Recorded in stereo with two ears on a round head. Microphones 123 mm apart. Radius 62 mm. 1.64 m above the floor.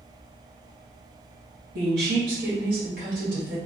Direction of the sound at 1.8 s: 85° right.